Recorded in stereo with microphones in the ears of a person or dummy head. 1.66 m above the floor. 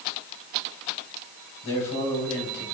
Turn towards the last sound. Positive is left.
turn(degrees=20)  # may be behind; listen again after turning